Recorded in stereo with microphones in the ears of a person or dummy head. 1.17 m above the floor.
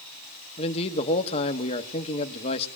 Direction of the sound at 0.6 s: 30° left (ahead or behind).